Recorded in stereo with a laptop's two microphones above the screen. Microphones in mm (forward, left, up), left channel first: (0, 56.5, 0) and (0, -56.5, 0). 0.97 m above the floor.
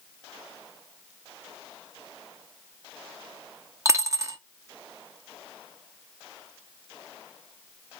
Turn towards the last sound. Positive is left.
turn(degrees=-30)  # may be behind; listen again after turning